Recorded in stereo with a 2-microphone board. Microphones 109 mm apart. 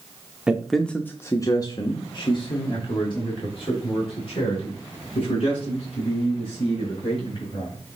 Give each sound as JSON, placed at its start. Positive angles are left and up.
{"t": 0.5, "sound": "a man speaking", "side_deg": -10, "distance_m": 0.7}